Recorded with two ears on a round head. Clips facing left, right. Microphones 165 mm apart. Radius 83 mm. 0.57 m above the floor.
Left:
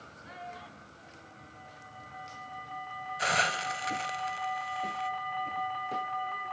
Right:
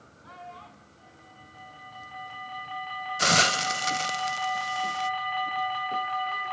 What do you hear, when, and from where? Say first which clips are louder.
0.2 s a child speaking: even; 20° left (ahead or behind), 3.5 m; by 2.6 s 10° right (ahead or behind), 4 m
3.2 s a hiss: right 5 dB; 50° right (ahead or behind), 0.6 m